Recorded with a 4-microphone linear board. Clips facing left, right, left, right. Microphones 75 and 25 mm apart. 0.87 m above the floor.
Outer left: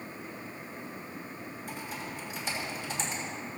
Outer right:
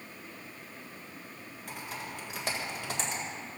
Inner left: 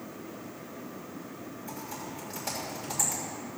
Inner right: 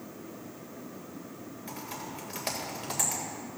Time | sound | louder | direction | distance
1.7 | typing on a keyboard | even, inner right 1 dB | 75° right (ahead or behind) | 2.5 m